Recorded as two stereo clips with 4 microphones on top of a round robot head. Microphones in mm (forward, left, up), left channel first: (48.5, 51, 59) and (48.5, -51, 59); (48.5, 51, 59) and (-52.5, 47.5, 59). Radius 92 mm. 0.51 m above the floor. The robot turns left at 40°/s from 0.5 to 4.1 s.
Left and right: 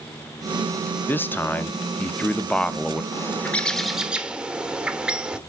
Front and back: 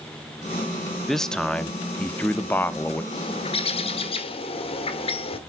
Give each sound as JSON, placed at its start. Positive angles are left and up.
{"t": 1.1, "sound": "a man speaking", "azimuth_deg": 85, "distance_m": 0.8}
{"t": 3.1, "sound": "a bird", "azimuth_deg": 30, "distance_m": 1.4}